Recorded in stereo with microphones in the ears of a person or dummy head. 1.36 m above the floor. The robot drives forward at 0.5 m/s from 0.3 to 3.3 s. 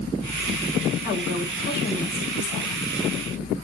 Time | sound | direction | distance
1.0 | a woman speaking | 55° left (ahead or behind) | 2.5 m